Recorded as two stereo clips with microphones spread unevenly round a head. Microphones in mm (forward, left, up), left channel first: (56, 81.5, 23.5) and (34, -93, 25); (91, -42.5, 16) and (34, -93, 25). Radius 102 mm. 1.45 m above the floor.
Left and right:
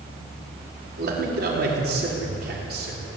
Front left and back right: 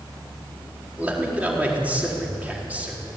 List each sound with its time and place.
1.0 s a man speaking: 70° right, 4.5 m